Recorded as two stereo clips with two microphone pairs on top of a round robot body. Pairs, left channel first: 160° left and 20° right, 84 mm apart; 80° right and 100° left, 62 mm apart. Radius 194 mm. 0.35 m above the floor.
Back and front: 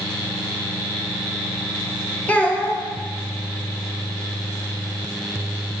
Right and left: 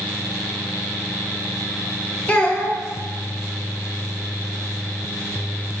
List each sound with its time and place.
2.3 s a child speaking: 135° right, 0.8 m